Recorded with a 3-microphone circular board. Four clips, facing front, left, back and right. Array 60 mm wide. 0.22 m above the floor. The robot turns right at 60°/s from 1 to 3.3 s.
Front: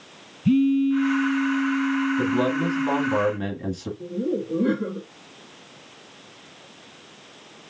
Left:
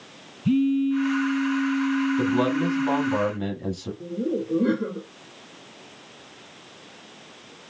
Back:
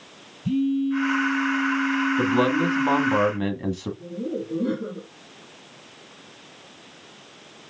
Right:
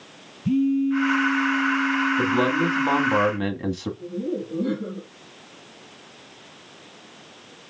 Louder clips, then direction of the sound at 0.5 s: Even, front 4 dB; 20° left.